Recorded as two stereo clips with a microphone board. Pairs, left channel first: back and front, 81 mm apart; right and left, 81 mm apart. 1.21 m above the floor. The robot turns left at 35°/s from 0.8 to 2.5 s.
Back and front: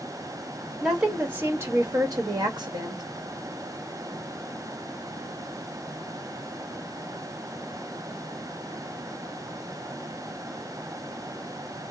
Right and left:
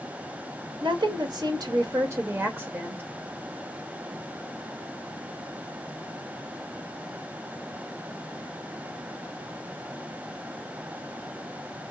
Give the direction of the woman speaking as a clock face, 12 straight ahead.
9 o'clock.